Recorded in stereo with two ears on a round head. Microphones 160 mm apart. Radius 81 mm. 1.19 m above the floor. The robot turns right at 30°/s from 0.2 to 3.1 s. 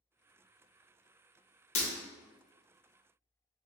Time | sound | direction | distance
1.8 | breaking glass | 40° left (ahead or behind) | 0.8 m